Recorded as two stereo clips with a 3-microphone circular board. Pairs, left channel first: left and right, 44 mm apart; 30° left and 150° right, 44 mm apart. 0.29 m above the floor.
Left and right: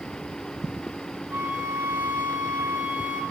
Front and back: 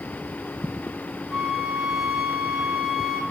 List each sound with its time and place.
1.3 s a flute: 75° right, 0.6 m